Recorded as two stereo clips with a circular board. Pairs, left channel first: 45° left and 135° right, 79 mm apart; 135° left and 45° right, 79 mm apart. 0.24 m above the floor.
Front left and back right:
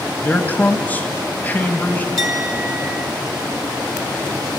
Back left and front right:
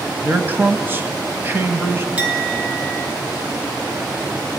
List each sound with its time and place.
0.2 s a man speaking: 5° right, 1.3 m
2.2 s a clink: 110° right, 1.6 m